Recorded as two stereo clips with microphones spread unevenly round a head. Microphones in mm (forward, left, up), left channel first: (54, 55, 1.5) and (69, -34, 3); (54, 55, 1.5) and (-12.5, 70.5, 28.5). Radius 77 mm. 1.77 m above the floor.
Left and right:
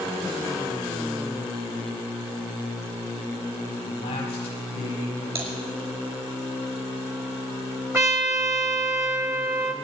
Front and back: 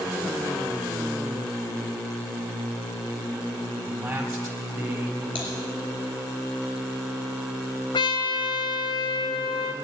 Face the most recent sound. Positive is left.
turn(degrees=-35)